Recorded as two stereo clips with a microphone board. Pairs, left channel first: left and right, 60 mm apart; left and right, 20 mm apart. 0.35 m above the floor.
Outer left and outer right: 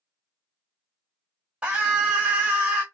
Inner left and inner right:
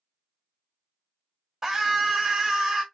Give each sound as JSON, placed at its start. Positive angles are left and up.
{"t": 1.6, "sound": "a scream", "side_deg": -20, "distance_m": 1.9}